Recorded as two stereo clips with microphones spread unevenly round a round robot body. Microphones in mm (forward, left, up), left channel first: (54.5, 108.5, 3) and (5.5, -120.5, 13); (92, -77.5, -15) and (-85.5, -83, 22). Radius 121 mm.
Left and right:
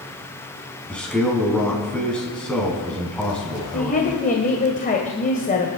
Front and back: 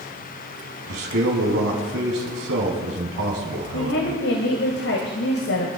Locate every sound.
0.9 s a man speaking: 165° left, 4.5 m
3.7 s a woman speaking: 25° left, 2 m